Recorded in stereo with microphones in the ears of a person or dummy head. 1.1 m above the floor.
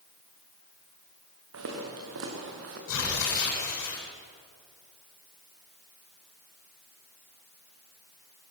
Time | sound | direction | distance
1.5 | footsteps | 80° right | 6.5 m
2.9 | tearing paper | 60° left (ahead or behind) | 8 m